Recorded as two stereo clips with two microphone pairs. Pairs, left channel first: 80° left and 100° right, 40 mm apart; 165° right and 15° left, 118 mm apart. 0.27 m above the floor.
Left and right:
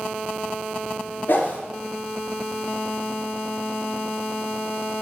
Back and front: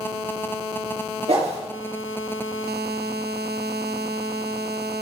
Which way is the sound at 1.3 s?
45° left.